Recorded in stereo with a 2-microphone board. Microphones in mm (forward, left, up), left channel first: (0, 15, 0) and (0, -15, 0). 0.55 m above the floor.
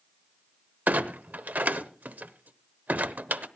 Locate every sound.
0.9 s a clunk: 70° right (ahead or behind), 0.8 m